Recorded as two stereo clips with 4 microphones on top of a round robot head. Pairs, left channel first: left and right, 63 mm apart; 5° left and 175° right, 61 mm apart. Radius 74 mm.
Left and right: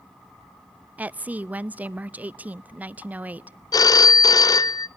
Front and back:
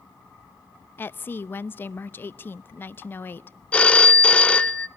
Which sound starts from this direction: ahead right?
A woman speaking, at 1.0 s.